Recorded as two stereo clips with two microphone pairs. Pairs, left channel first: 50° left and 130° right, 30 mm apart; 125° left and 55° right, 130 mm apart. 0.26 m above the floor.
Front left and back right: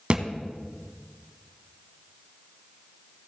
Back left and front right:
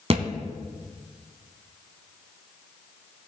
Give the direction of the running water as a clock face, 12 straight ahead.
I don't hear running water.